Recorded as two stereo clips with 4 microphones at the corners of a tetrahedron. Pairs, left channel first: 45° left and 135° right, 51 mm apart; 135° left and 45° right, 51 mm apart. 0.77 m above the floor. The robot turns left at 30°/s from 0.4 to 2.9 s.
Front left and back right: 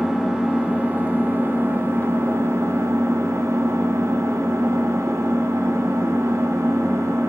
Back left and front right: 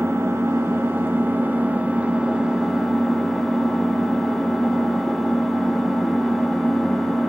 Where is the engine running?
60° right, 1.9 m; by 7.3 s 135° right, 1.9 m.